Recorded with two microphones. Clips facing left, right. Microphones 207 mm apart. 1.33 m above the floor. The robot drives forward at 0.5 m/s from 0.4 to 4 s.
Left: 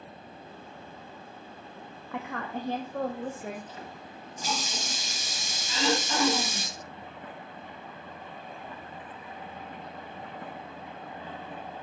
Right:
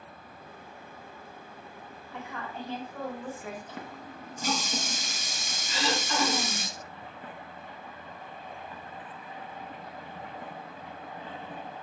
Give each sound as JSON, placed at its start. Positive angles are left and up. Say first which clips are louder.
{"t": 2.1, "sound": "a woman speaking", "louder": "left 5 dB", "side_deg": 75, "distance_m": 0.8}
{"t": 3.7, "sound": "a running tap", "louder": "right 2 dB", "side_deg": -60, "distance_m": 1.1}
{"t": 5.7, "sound": "throat clearing", "louder": "left 3 dB", "side_deg": 20, "distance_m": 5.0}